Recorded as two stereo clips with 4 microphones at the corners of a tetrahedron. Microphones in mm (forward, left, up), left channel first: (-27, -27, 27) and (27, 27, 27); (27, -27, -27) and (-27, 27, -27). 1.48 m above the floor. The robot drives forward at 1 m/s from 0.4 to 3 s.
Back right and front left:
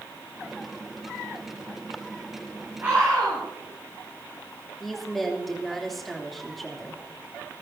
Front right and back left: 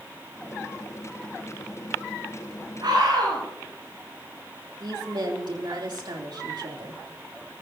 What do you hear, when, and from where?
2.8 s a scream: 110° left, 9 m; by 3.4 s 115° left, 9 m
4.8 s a woman speaking: 135° left, 3 m